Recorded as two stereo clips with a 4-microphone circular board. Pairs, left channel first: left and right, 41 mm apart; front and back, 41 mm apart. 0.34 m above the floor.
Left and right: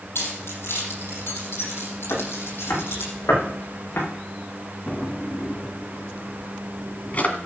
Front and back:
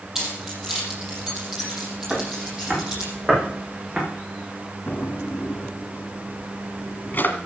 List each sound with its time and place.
0.1 s keys jangling: 100° left, 6.5 m; by 3.1 s 110° left, 8 m
2.1 s footsteps: 100° left, 8.5 m; by 4.0 s 115° left, 10.5 m
4.9 s a drawer: 40° left, 2 m